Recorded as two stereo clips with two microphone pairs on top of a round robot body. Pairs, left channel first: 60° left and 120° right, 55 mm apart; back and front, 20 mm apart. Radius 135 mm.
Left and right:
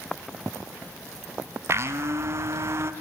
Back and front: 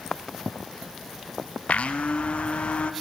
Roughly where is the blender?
Behind.